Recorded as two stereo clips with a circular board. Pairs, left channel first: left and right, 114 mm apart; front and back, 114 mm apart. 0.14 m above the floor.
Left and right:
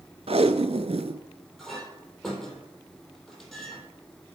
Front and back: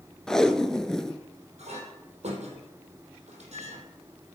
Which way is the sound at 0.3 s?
85° right.